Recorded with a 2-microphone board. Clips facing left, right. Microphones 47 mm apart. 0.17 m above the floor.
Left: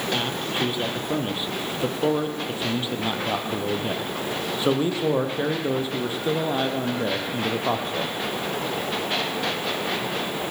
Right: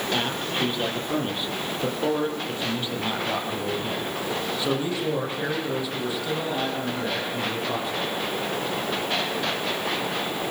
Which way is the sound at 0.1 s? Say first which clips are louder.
Right 1 dB; centre (ahead or behind).